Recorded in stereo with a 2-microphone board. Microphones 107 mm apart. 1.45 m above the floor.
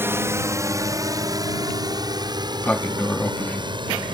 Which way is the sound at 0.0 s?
20° right (ahead or behind).